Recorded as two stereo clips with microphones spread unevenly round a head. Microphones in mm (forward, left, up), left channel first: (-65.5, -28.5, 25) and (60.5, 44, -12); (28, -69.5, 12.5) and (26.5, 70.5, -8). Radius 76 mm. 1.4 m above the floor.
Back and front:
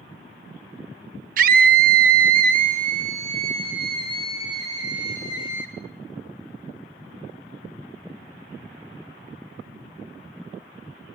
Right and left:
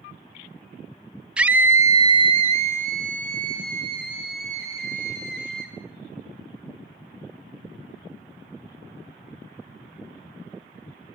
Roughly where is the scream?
Ahead.